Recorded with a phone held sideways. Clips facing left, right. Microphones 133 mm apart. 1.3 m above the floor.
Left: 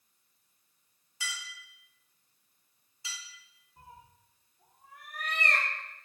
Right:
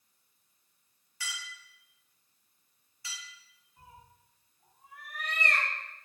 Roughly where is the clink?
Left.